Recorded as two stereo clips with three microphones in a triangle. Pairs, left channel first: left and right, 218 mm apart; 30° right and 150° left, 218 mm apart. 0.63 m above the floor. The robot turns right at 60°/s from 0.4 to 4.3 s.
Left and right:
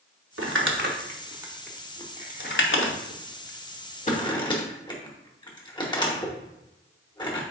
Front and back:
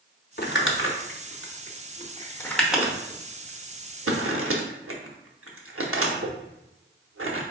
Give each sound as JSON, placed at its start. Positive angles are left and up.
{"t": 0.4, "sound": "crumpling", "azimuth_deg": -75, "distance_m": 0.8}